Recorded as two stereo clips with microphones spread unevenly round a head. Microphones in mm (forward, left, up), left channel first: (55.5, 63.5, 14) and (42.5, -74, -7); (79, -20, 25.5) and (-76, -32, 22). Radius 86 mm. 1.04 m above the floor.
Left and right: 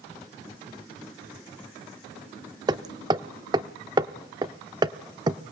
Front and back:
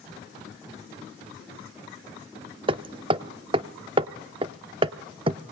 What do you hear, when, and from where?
2.7 s hammering: 150° right, 0.6 m